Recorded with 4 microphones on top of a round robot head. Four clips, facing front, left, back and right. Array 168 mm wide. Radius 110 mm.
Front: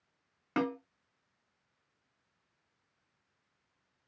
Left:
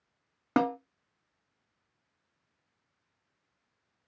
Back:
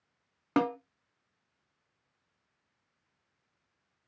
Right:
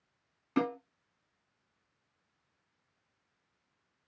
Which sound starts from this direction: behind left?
A snare drum, at 0.6 s.